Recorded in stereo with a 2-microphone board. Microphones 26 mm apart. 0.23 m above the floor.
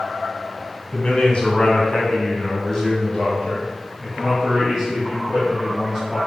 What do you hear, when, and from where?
0.9 s a man speaking: 45° left (ahead or behind), 2 m; by 6.2 s 10° right (ahead or behind), 4 m